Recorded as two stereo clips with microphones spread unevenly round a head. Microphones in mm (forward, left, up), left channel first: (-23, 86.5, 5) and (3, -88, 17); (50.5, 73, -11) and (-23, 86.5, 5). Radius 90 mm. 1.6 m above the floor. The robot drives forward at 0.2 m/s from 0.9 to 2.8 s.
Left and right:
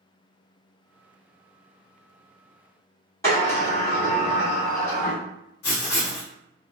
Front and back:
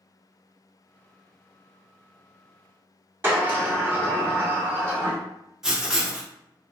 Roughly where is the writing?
Left.